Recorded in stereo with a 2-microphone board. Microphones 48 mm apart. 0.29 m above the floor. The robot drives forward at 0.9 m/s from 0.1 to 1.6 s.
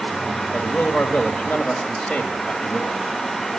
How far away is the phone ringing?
I don't hear a phone ringing.